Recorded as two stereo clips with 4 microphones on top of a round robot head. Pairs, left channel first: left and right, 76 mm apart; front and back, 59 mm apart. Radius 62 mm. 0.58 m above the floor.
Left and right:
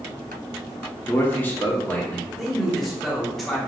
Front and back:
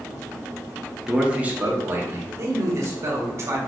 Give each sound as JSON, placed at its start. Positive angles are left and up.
{"t": 1.1, "sound": "a man speaking", "azimuth_deg": 105, "distance_m": 1.0}
{"t": 2.4, "sound": "a man speaking", "azimuth_deg": 180, "distance_m": 1.3}